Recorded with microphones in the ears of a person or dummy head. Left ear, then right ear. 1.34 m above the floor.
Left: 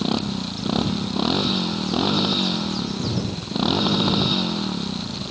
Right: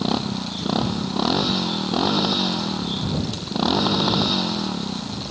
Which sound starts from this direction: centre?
A motorcycle, at 0.0 s.